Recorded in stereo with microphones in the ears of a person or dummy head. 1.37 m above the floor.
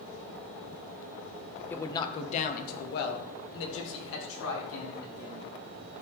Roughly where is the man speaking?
Centre.